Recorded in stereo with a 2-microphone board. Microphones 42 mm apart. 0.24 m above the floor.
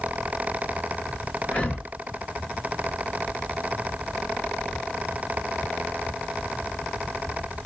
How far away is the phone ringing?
I don't hear a phone ringing.